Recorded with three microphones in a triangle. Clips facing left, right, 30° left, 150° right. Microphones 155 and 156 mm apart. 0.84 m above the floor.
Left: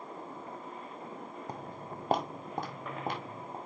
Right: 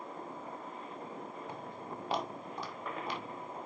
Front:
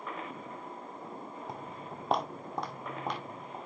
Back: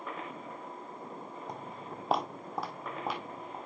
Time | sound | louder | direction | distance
1.5 | footsteps | left 1 dB, even | 120° left | 1.1 m